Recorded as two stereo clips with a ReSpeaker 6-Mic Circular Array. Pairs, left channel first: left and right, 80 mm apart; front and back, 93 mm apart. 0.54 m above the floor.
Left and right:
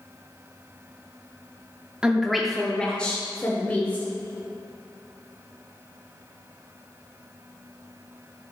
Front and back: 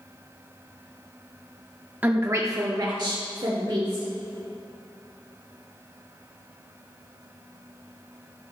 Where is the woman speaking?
145° right, 0.6 m; by 4.1 s 155° left, 1.6 m.